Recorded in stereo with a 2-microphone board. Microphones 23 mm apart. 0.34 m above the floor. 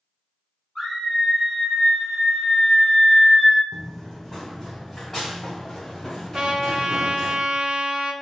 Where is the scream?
25° left (ahead or behind), 2.0 m; by 3.6 s 30° left (ahead or behind), 1.0 m.